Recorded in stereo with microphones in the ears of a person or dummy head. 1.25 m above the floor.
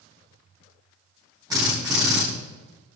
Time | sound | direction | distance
1.5 | a drill | 25° right (ahead or behind) | 5.5 m